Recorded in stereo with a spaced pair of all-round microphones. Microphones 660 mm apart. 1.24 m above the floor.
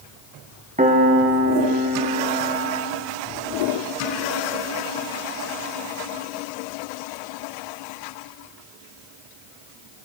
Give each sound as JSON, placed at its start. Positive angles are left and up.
{"t": 0.8, "sound": "a piano", "side_deg": -10, "distance_m": 0.9}